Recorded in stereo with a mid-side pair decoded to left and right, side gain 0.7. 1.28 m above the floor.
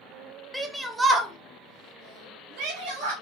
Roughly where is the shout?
Ahead.